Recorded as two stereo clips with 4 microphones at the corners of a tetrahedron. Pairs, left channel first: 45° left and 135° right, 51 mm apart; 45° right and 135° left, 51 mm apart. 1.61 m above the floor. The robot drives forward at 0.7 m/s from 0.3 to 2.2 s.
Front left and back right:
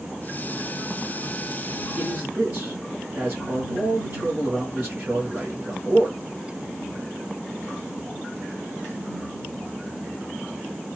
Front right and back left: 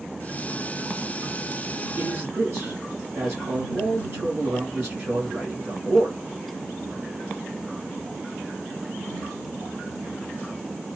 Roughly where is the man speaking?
Behind.